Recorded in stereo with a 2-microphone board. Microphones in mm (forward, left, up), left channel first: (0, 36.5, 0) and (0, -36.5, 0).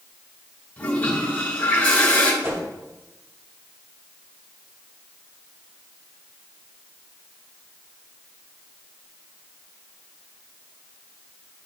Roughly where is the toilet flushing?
Left.